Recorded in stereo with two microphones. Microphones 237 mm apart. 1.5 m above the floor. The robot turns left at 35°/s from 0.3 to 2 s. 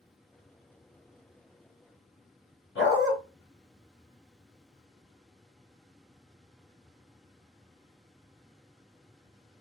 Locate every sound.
2.8 s a dog barking: 55° left (ahead or behind), 2.5 m